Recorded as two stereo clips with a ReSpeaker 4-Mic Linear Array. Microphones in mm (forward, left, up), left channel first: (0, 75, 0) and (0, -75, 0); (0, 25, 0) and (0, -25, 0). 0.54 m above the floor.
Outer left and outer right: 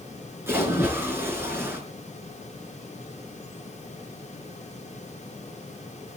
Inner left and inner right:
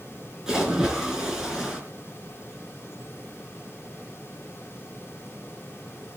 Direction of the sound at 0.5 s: 15° right (ahead or behind).